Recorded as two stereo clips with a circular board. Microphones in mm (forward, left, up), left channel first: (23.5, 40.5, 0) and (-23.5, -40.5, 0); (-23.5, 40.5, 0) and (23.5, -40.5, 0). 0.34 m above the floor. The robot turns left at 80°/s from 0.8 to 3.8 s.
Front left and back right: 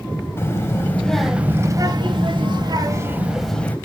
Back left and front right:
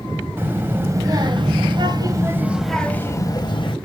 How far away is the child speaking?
About 1.4 m.